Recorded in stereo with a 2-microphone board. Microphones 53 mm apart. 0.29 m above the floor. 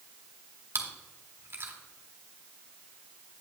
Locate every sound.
0.8 s chewing: 45° right (ahead or behind), 1.5 m